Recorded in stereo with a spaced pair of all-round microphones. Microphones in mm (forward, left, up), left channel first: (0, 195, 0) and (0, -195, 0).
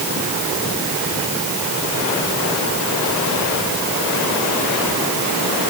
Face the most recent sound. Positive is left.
No sound to turn to.